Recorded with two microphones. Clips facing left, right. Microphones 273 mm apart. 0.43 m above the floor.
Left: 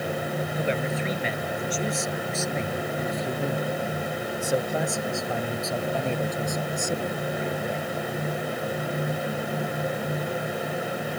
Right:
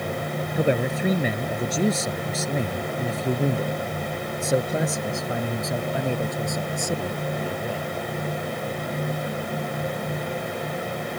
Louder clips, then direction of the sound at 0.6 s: Right 7 dB; 55° right (ahead or behind).